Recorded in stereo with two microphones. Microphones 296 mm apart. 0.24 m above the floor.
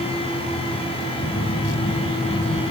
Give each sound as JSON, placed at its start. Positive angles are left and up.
{"t": 1.2, "sound": "a phone buzzing", "side_deg": 25, "distance_m": 1.7}